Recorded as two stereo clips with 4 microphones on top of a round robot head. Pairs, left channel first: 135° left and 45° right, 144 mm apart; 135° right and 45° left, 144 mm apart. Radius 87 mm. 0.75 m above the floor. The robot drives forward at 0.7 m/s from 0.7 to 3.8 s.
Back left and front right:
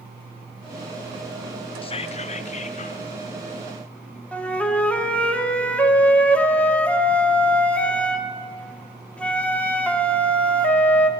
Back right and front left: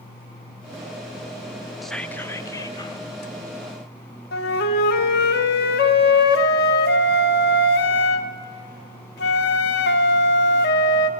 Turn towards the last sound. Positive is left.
turn(degrees=-145)